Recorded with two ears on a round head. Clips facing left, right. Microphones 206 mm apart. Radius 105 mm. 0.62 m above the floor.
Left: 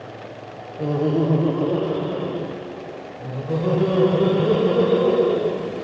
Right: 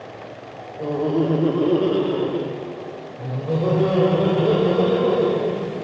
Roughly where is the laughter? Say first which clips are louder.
Even; centre.